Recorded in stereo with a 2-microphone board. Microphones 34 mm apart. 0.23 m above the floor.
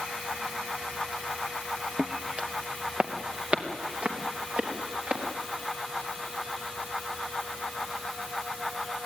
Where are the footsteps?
15° right (ahead or behind), 0.7 m; by 5.2 s 45° right (ahead or behind), 4.5 m.